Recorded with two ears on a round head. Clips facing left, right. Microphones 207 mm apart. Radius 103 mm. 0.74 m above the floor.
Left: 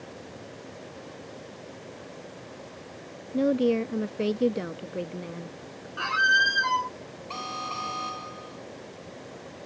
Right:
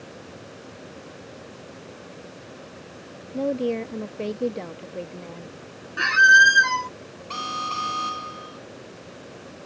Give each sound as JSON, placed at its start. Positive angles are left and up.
{"t": 3.3, "sound": "a woman speaking", "side_deg": 15}
{"t": 6.0, "sound": "a squeak", "side_deg": -30}
{"t": 7.3, "sound": "an alarm", "side_deg": -15}